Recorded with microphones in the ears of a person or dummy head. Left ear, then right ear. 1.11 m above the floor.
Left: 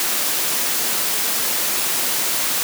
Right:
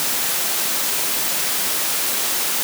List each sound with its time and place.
Only background noise.